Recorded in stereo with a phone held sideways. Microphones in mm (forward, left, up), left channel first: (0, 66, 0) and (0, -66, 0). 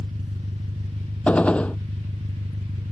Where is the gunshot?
10° left (ahead or behind).